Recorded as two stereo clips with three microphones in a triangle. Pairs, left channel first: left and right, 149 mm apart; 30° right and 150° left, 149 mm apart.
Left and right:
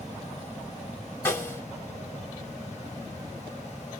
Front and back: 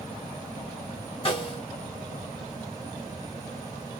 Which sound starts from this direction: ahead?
A snare drum, at 1.2 s.